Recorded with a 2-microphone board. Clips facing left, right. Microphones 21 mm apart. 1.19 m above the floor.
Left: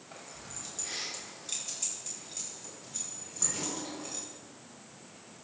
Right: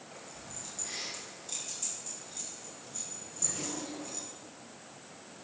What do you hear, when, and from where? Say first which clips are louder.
0.1 s keys jangling: left 3 dB; 20° left (ahead or behind), 5 m; by 4.2 s 40° left (ahead or behind), 7.5 m